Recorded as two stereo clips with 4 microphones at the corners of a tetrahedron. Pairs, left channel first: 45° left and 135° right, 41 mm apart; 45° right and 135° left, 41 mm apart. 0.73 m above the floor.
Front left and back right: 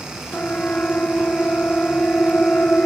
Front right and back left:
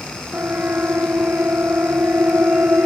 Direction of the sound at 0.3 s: 100° left.